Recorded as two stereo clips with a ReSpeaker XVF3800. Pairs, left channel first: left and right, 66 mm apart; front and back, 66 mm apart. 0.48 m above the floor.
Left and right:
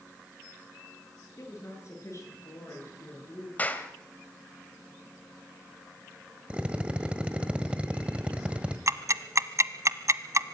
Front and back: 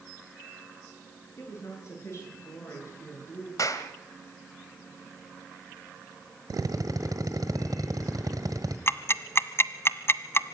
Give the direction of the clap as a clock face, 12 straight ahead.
11 o'clock.